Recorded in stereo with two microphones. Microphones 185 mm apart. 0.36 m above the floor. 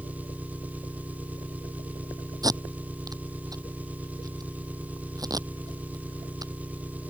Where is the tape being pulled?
20° right (ahead or behind).